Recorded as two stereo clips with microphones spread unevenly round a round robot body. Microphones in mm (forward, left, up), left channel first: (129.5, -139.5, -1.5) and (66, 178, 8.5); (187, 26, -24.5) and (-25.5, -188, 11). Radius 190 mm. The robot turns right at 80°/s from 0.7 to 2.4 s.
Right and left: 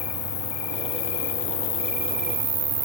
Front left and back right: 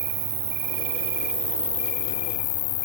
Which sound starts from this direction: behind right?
An insect, at 0.0 s.